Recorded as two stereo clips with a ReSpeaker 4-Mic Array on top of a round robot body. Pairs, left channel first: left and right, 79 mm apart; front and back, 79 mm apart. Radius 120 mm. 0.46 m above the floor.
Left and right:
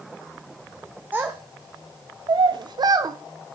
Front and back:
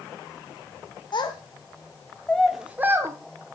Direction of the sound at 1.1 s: 20° right.